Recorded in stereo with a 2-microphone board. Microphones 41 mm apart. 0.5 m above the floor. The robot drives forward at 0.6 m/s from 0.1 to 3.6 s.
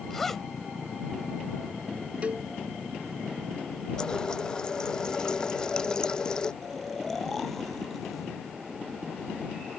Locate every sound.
0.1 s a zipper: 5° left (ahead or behind); by 0.5 s 10° left (ahead or behind)
2.2 s a cowbell: 35° right (ahead or behind); by 2.5 s 30° right (ahead or behind)
4.0 s a running tap: 20° left (ahead or behind)
6.6 s snoring: 5° left (ahead or behind)